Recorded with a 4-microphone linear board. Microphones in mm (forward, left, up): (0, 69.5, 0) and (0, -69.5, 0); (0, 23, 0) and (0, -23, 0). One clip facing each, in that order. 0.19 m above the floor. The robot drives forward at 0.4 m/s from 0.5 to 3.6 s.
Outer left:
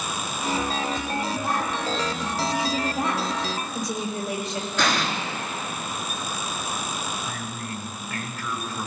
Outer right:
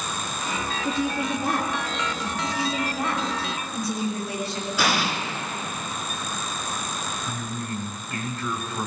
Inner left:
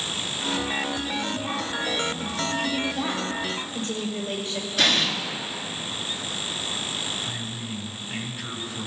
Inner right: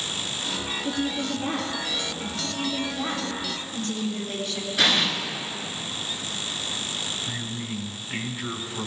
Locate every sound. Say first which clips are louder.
0.8 s a woman speaking: outer right 2 dB, inner right 1 dB; 70° right (ahead or behind), 4 m; by 2.3 s 65° right (ahead or behind), 4.5 m
2.4 s a woman speaking: outer left 2 dB, inner left 3 dB; 25° left (ahead or behind), 5 m
4.8 s an explosion: even, even; 10° right (ahead or behind), 2 m
7.3 s a man speaking: outer right 2 dB, inner right 1 dB; 25° right (ahead or behind), 1.8 m